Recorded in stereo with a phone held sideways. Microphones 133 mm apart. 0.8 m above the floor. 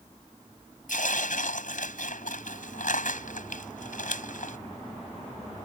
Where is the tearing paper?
85° left.